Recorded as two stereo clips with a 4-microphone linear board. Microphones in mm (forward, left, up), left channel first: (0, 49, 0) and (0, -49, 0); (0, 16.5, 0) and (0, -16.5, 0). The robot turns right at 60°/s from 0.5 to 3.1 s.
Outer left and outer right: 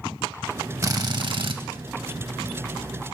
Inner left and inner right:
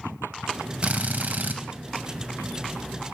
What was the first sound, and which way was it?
A drill, 140° right.